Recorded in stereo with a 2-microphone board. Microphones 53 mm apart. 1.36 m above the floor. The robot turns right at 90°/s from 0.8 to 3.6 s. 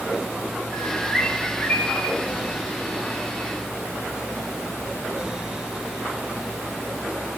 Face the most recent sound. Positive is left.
turn(degrees=-155)